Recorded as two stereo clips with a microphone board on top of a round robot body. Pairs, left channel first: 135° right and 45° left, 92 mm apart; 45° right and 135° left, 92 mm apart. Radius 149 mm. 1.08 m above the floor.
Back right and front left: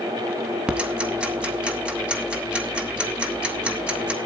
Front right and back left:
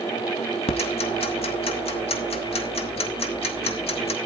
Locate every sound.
0.7 s ticking: 35° right, 0.7 m